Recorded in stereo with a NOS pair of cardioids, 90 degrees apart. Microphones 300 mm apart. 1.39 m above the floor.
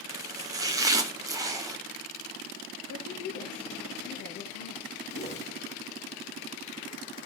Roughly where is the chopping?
Ahead.